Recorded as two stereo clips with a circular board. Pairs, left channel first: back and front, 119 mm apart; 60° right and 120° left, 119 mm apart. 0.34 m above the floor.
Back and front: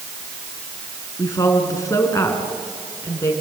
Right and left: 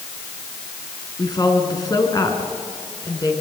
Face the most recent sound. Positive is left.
turn(degrees=-115)